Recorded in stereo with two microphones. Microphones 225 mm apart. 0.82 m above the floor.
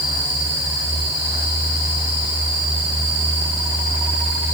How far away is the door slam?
No door slam in this recording.